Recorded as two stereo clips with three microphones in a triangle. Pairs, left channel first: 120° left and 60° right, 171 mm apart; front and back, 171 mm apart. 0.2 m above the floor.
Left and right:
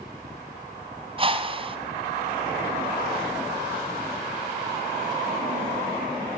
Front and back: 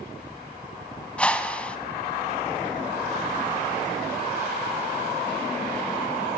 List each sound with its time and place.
1.2 s a whoosh: 80° right, 1.9 m